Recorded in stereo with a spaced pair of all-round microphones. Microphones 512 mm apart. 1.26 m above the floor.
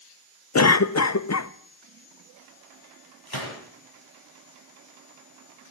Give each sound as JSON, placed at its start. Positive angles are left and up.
{"t": 0.6, "sound": "a cough", "side_deg": 35, "distance_m": 0.5}
{"t": 3.3, "sound": "a gunshot", "side_deg": 50, "distance_m": 7.0}